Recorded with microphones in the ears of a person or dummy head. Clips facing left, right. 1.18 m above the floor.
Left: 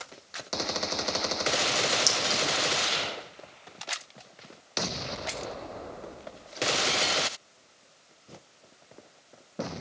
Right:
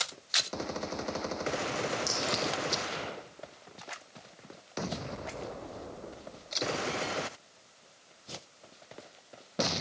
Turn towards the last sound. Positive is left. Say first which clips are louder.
# left 1 dB
turn(degrees=65)  # may be behind; listen again after turning